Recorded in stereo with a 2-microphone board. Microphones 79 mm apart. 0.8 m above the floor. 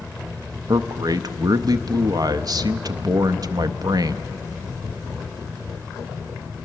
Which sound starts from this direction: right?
A man speaking, at 0.7 s.